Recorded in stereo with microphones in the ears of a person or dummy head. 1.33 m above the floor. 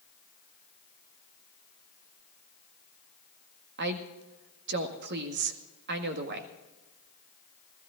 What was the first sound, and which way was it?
A woman speaking, 65° right (ahead or behind).